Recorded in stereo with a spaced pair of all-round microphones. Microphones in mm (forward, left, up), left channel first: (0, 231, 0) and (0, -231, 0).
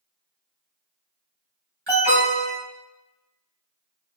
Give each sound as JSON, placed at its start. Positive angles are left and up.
{"t": 1.9, "sound": "an alarm", "side_deg": -85, "distance_m": 2.5}